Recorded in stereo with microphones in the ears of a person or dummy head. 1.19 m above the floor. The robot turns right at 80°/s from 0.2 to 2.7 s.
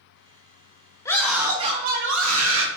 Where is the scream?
160° left, 1.6 m; by 2.7 s 70° right, 1.6 m.